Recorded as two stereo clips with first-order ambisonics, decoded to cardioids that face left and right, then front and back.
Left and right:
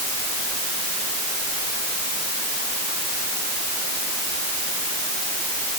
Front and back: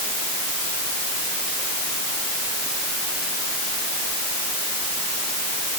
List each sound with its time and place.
Only background noise.